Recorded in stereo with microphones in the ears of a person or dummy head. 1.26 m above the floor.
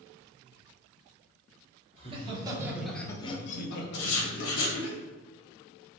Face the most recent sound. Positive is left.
turn(degrees=75)  # may be behind; listen again after turning